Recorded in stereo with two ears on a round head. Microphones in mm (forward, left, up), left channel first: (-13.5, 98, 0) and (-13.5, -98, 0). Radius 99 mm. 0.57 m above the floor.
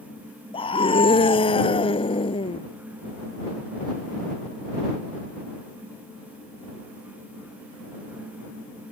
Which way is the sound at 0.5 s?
25° left (ahead or behind).